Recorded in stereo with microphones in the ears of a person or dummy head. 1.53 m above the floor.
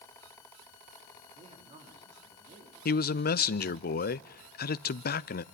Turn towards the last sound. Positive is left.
turn(degrees=45)  # may be behind; listen again after turning